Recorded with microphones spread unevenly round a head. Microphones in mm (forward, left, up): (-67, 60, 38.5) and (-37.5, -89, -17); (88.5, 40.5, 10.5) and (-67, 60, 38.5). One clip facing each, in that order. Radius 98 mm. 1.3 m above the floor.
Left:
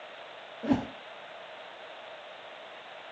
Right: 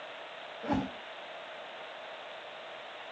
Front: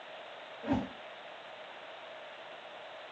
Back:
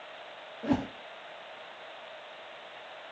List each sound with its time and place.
0.6 s a whoosh: 140° left, 0.7 m